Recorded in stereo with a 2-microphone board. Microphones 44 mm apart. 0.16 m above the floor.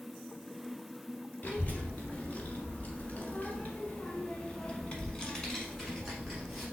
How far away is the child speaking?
About 1.8 m.